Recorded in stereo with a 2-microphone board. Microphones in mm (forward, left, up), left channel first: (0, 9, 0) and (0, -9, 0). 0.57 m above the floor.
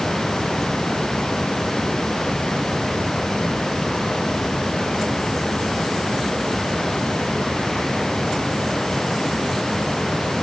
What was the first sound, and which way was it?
Only background noise.